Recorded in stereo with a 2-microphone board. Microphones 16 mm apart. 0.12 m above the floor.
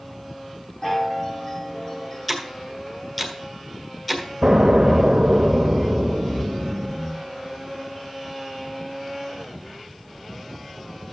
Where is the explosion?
50° right (ahead or behind), 1.0 m.